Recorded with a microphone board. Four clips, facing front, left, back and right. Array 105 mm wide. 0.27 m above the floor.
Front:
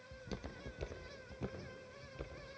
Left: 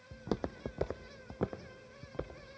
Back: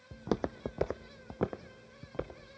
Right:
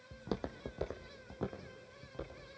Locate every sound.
0.1 s footsteps: 170° left, 0.6 m; by 2.6 s 160° left, 1.9 m